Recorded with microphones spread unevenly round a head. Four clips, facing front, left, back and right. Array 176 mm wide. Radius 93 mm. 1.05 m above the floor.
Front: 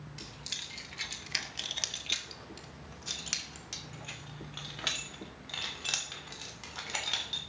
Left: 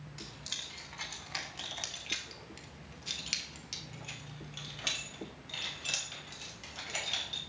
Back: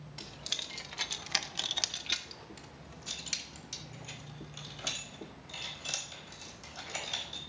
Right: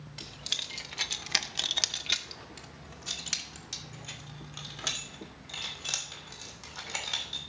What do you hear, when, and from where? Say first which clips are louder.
0.2 s keys jangling: right 3 dB, back 1 dB; 145° right, 1.0 m; by 7.4 s 25° right, 3.5 m